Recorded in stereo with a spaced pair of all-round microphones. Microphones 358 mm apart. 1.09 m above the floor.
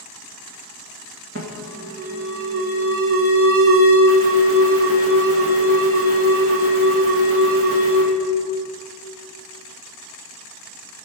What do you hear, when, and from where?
1.4 s an alarm: 40° right (ahead or behind), 2 m